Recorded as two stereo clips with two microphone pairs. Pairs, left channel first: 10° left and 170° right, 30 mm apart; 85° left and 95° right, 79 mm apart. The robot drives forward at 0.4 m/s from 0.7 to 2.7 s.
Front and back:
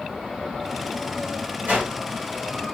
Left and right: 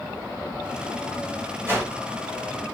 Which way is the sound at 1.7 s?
155° right.